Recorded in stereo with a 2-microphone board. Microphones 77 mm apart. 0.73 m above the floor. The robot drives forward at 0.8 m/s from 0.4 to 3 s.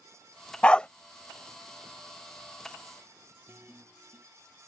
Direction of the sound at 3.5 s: 25° right (ahead or behind).